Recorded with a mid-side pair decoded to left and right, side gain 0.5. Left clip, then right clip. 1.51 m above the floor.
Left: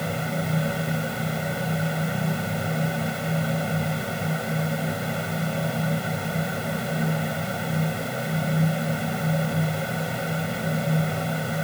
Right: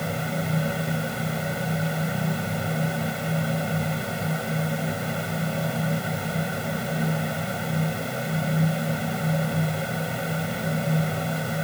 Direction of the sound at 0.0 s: 5° left.